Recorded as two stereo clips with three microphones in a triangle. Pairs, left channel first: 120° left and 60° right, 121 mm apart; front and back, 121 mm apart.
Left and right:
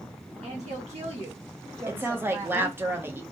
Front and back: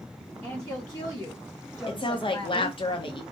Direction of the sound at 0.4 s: 65° right.